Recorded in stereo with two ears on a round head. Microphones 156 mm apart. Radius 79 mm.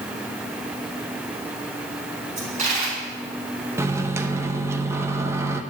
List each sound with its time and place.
2.4 s a dropped coin: 45° right (ahead or behind), 4.5 m
3.8 s a microwave: 15° right (ahead or behind), 0.7 m